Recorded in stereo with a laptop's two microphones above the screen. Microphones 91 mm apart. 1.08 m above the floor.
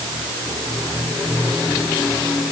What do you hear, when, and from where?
Only background noise.